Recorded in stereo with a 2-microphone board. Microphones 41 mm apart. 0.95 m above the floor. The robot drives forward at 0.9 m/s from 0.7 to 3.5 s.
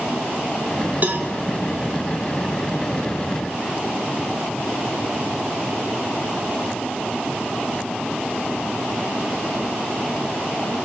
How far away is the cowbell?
About 2.5 m.